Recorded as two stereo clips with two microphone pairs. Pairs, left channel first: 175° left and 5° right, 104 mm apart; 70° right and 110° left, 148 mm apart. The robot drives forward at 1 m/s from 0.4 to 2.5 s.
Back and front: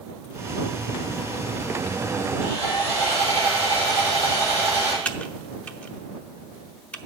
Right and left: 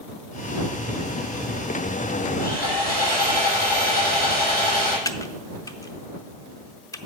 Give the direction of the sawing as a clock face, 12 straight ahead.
2 o'clock.